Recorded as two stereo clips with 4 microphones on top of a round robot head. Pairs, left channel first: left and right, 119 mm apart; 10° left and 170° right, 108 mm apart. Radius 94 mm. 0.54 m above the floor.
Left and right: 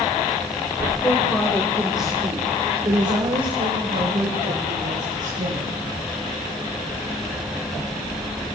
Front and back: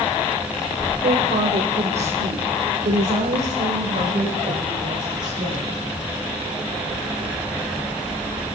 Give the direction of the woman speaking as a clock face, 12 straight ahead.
7 o'clock.